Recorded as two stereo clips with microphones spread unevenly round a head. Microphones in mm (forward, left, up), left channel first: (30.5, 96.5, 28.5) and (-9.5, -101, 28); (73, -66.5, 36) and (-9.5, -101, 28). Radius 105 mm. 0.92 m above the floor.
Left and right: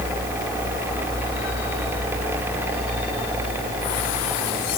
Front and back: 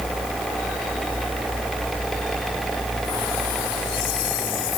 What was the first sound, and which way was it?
Only background noise.